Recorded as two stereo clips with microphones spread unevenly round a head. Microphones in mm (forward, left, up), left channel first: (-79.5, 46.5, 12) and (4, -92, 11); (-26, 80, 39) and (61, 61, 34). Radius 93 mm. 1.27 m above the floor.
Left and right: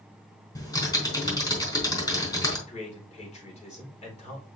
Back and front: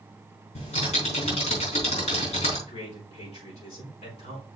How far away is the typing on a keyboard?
About 4 m.